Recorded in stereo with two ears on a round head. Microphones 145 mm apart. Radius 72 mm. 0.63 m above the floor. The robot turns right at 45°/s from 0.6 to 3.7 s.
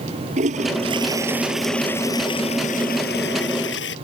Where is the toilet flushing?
45° right; by 4.0 s 95° left.